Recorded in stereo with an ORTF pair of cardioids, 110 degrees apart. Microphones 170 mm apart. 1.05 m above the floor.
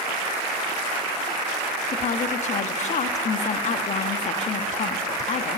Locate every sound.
1.9 s a woman speaking: 45° left, 1.5 m